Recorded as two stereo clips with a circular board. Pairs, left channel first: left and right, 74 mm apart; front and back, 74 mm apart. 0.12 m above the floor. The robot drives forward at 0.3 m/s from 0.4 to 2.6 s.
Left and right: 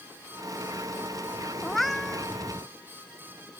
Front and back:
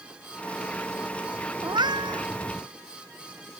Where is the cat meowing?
Straight behind.